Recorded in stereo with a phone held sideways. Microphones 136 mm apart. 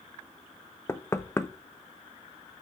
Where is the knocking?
20° left (ahead or behind), 0.7 m.